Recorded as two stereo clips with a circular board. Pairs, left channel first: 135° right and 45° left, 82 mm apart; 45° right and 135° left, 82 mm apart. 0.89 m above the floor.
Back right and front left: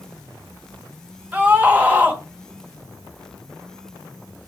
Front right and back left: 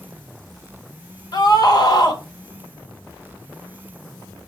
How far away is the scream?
About 1.3 m.